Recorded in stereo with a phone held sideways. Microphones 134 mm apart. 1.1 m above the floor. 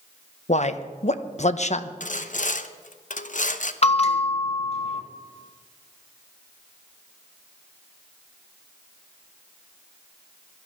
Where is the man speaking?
60° left (ahead or behind), 0.9 m.